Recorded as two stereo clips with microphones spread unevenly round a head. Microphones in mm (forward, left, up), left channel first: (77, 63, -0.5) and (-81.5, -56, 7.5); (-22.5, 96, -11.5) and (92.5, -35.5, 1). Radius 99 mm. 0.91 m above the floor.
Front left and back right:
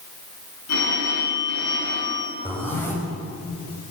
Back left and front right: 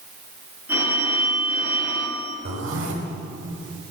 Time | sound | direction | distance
0.7 | a phone ringing | 30° left | 8.5 m
2.5 | a zipper | 45° right | 4.5 m